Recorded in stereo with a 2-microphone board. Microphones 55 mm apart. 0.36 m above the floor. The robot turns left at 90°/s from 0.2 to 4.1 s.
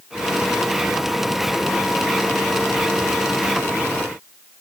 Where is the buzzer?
I don't hear a buzzer.